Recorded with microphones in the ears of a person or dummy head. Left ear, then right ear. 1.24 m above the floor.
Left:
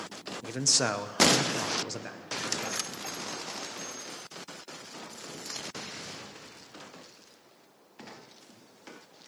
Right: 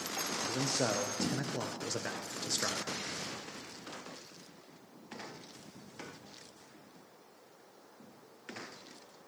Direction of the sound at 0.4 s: 55° left (ahead or behind).